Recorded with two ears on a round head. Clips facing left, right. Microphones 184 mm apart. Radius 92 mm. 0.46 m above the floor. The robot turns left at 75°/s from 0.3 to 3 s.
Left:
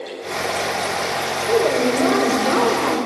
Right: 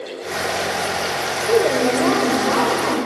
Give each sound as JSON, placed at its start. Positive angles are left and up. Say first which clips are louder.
{"t": 1.5, "sound": "a woman speaking", "louder": "right 1 dB", "azimuth_deg": -155, "distance_m": 1.4}